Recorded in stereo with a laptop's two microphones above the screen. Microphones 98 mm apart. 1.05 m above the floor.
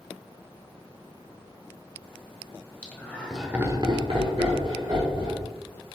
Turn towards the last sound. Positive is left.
turn(degrees=-55)  # may be behind; listen again after turning